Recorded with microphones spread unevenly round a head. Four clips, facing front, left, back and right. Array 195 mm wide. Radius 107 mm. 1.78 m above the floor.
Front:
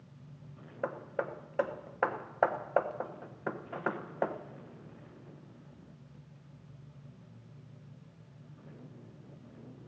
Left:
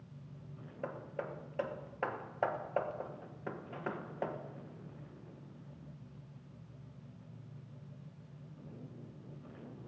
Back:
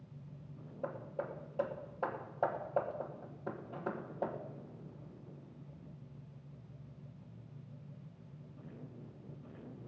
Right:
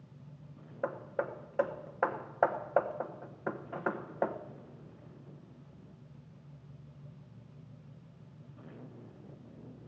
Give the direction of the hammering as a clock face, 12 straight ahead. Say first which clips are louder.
Right 6 dB, front 5 dB; 1 o'clock.